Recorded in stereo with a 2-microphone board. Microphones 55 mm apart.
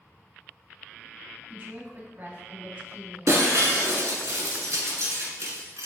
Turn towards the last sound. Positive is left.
turn(degrees=-65)  # may be behind; listen again after turning